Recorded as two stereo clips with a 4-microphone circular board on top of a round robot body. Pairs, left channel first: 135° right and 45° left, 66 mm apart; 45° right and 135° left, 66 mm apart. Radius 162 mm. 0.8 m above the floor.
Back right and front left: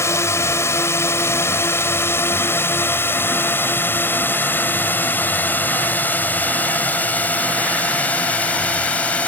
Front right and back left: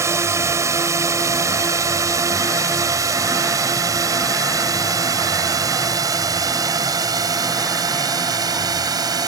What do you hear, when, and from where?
0.0 s a drone: straight behind; by 9.3 s 155° left